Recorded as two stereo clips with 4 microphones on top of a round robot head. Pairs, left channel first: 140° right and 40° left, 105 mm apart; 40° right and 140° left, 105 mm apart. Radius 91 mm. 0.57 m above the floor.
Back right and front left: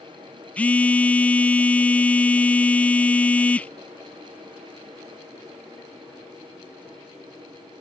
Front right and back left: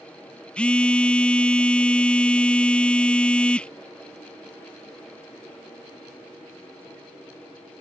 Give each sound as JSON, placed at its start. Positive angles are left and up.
{"t": 0.6, "sound": "a phone buzzing", "azimuth_deg": -100}